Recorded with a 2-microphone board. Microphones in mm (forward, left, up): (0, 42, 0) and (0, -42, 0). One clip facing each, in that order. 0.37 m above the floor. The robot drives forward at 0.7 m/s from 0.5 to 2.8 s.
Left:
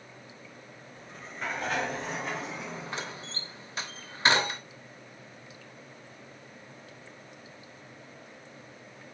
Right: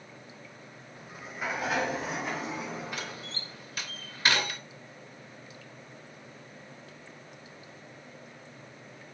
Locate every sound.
1.0 s a sliding door: 10° right (ahead or behind), 0.6 m; by 3.6 s centre (ahead or behind), 1.8 m
2.9 s a door slam: 30° left (ahead or behind), 0.6 m